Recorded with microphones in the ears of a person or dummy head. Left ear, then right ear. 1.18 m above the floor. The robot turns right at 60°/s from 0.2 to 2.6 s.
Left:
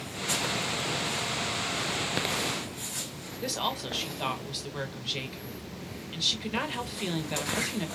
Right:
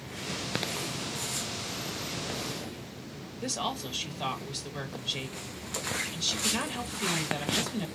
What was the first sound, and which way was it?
A woman speaking, 10° left (ahead or behind).